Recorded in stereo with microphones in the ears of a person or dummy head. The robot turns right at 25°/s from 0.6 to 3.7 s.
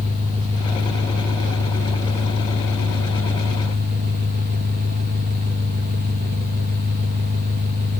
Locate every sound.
0.0 s an engine running: 145° right, 1.1 m; by 8.0 s 65° right, 1.1 m